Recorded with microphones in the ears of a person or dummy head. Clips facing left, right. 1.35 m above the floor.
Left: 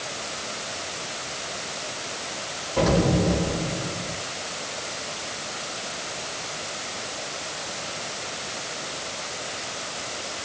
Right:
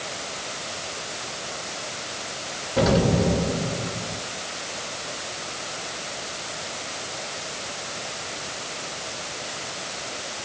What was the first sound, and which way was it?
An explosion, 15° right (ahead or behind).